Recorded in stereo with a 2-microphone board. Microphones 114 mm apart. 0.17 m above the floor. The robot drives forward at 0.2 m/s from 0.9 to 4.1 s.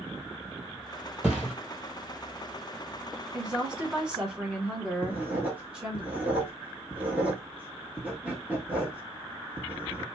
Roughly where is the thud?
Centre.